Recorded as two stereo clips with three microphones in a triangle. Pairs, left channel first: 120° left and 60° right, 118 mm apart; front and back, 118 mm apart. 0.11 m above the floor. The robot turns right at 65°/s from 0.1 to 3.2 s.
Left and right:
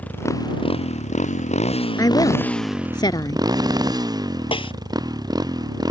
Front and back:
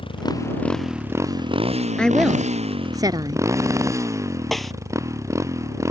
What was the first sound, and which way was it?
A motorcycle, 45° left.